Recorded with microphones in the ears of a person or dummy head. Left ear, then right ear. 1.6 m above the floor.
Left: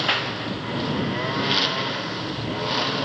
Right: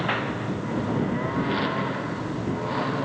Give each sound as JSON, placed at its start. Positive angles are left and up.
{"t": 0.0, "sound": "a lawn mower", "side_deg": 90}